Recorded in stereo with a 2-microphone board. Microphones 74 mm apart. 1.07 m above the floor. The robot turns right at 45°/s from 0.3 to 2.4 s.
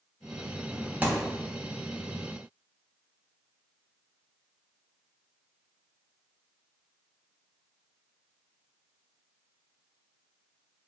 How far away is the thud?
About 0.7 m.